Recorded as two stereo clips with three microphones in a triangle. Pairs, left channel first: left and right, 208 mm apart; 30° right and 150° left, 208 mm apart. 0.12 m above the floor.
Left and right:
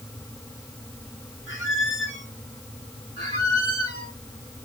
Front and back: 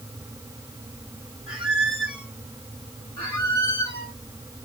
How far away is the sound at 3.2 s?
About 2.5 m.